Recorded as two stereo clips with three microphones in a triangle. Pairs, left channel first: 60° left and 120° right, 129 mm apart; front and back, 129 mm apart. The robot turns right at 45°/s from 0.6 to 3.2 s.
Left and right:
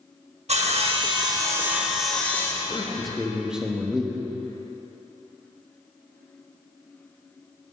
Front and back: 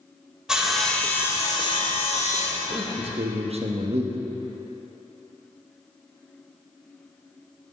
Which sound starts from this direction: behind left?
A man speaking, at 2.7 s.